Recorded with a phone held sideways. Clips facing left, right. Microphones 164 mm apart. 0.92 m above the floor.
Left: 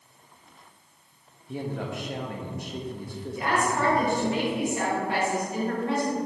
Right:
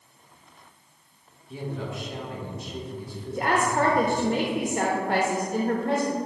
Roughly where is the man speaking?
Left.